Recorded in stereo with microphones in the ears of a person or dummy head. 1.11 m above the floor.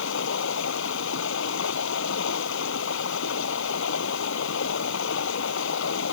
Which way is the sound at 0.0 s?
75° left (ahead or behind).